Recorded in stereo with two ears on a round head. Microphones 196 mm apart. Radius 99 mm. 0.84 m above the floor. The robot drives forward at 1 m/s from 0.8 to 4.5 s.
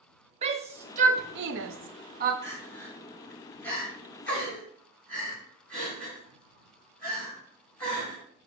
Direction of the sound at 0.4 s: 30° right (ahead or behind).